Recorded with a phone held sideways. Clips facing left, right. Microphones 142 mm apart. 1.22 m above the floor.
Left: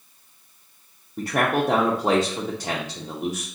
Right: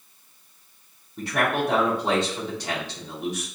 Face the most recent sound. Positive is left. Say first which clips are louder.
# left 2 dB
turn(degrees=45)  # may be behind; listen again after turning